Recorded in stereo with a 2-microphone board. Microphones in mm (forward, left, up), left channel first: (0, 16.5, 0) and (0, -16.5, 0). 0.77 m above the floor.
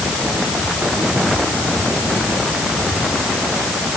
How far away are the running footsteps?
I don't hear running footsteps.